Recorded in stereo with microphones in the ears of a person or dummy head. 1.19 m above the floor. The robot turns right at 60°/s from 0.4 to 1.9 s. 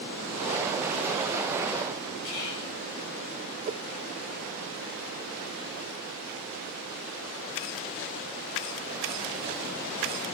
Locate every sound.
2.2 s whispering: 70° left (ahead or behind), 4 m
3.6 s a whoosh: 40° right (ahead or behind), 0.7 m